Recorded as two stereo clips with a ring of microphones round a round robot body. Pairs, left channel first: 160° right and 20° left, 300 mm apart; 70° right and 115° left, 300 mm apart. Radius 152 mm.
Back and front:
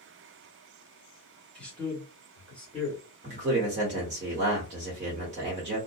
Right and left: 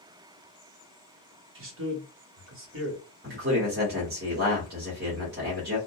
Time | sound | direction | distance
1.6 | a man speaking | 120° left | 1.4 m
3.2 | a man speaking | 75° left | 1.2 m